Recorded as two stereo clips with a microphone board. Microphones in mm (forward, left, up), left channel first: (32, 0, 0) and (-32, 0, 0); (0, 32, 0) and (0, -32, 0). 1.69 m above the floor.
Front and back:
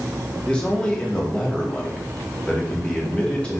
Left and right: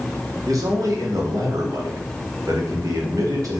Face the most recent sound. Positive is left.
turn(degrees=-75)